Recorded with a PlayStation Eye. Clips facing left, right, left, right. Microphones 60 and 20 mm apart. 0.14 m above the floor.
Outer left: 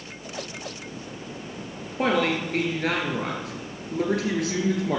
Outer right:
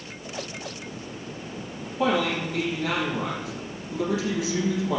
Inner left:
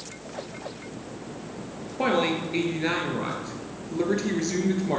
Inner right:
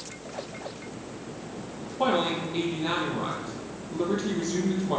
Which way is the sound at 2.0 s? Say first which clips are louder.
Outer left 1 dB, inner left 1 dB; 60° left (ahead or behind).